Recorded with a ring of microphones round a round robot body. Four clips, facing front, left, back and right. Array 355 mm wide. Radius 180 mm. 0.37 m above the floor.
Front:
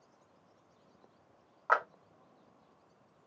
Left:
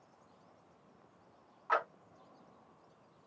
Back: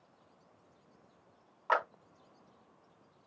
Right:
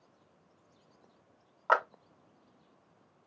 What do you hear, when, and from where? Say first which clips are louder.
1.7 s a clap: right 6 dB, front 1 dB; 75° right, 1.4 m